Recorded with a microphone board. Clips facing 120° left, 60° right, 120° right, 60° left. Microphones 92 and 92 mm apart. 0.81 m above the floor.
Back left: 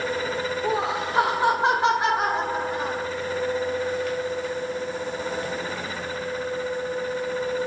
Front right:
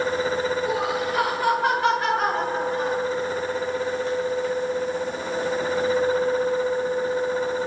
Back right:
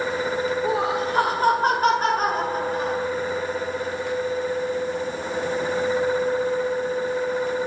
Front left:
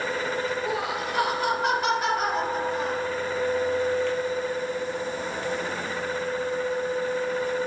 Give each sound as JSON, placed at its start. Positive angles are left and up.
{"t": 0.6, "sound": "laughter", "azimuth_deg": 175, "distance_m": 1.8}